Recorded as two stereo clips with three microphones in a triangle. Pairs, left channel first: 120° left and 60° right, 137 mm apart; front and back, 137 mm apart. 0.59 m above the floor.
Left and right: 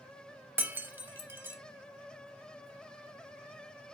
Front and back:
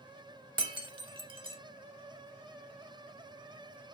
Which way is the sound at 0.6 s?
135° right.